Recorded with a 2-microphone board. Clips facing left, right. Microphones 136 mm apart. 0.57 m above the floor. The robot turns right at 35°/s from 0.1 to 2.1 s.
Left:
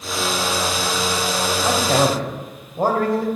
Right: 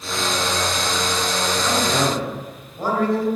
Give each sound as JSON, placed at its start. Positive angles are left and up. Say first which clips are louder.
{"t": 1.6, "sound": "a man speaking", "louder": "left 4 dB", "side_deg": 30, "distance_m": 3.5}